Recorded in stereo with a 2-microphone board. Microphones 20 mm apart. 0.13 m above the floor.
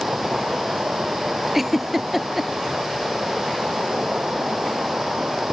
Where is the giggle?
15° right (ahead or behind).